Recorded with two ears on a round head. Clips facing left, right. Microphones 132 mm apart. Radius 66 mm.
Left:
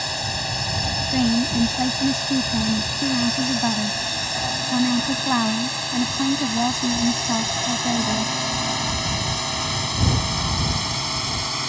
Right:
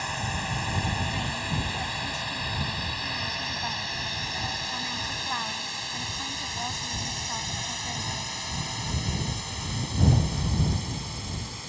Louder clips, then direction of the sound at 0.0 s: Left 3 dB; 45° left (ahead or behind).